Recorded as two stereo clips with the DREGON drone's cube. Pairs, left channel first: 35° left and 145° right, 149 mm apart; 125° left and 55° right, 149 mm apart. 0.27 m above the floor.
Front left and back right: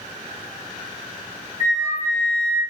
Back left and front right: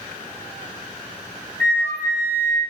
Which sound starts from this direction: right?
A flute, at 1.6 s.